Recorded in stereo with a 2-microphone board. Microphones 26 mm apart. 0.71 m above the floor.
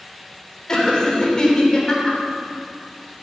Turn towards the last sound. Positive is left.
turn(degrees=30)  # may be behind; listen again after turning